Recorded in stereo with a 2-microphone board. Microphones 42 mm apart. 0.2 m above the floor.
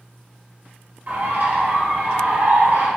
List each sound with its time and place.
1.1 s a bird: 45° right (ahead or behind), 3 m